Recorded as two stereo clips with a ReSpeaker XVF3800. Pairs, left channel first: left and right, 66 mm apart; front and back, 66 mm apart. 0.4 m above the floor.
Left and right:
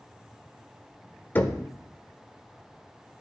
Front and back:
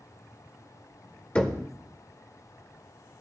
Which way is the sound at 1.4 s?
60° left.